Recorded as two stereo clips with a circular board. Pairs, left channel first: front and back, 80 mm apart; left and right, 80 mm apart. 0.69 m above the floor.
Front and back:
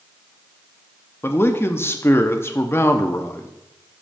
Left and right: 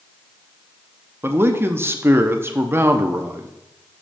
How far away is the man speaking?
About 0.8 m.